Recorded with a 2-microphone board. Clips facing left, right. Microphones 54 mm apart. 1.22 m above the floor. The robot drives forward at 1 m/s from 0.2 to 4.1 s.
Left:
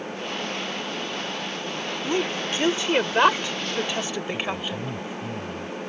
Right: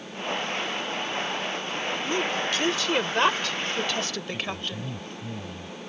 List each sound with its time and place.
2.0 s a woman speaking: 25° left (ahead or behind); by 4.9 s 15° left (ahead or behind)
4.3 s a man speaking: 10° left (ahead or behind)